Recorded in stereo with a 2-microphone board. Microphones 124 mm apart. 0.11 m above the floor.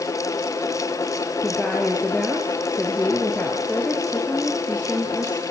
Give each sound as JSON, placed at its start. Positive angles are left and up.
{"t": 1.4, "sound": "a woman speaking", "side_deg": 10, "distance_m": 2.5}